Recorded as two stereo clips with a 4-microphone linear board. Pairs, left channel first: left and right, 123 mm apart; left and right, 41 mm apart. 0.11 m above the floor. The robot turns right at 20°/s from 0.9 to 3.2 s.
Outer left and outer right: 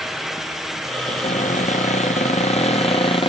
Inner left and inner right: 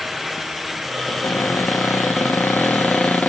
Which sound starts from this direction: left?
A cupboard door, at 1.1 s.